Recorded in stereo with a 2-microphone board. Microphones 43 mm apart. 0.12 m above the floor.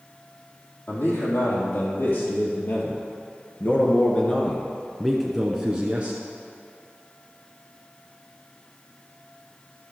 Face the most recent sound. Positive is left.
turn(degrees=-35)  # may be behind; listen again after turning